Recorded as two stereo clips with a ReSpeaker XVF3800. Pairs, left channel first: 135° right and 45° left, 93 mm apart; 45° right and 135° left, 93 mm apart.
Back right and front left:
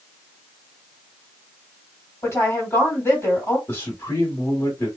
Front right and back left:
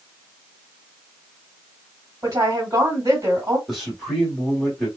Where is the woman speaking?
170° left, 2.0 m.